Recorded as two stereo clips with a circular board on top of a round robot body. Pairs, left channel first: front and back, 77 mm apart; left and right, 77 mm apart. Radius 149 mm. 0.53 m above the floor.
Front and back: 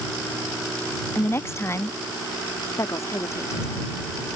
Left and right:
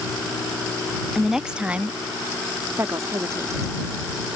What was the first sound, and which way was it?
A woman speaking, straight ahead.